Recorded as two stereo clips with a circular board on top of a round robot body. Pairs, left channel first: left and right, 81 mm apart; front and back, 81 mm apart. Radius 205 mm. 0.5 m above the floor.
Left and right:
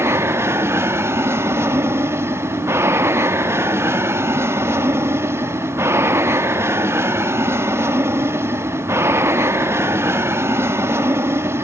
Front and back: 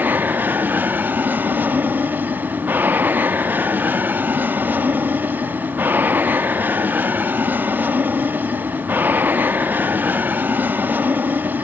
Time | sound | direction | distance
0.0 | an aircraft | 125° right | ?